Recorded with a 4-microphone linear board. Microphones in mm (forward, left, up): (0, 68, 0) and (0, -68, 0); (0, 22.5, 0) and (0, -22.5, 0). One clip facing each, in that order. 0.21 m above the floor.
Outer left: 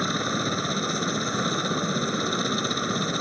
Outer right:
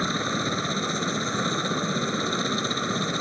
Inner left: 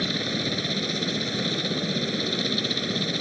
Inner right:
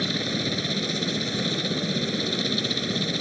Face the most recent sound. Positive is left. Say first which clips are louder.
# even, even
turn(degrees=0)  # may be behind; listen again after turning